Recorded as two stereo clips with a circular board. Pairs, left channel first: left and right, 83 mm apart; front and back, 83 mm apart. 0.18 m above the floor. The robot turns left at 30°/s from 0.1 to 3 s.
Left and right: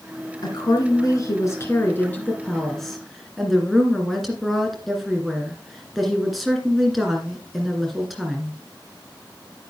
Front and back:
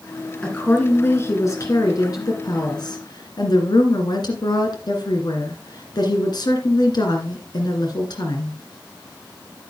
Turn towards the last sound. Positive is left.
turn(degrees=0)